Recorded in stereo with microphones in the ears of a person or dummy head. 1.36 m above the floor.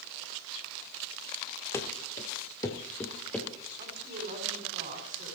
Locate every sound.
1.7 s running footsteps: 10° left (ahead or behind), 1.7 m; by 3.5 s 5° left (ahead or behind), 1.9 m
3.8 s a woman speaking: 40° right (ahead or behind), 4.5 m